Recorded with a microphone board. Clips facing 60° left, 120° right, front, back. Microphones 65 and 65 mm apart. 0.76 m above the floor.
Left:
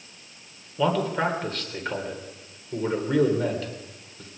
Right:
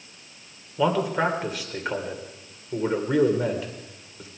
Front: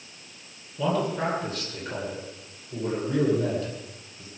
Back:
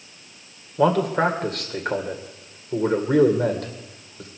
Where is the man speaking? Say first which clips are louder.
Right 1 dB, back 7 dB; 160° left, 2.5 m.